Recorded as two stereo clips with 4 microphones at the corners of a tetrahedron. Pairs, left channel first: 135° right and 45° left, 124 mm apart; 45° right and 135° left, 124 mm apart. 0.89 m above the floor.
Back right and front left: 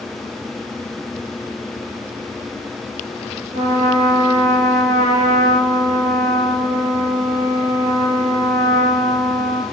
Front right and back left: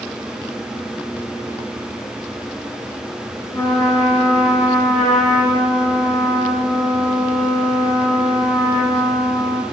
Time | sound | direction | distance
3.5 | a trumpet | 45° left | 1.8 m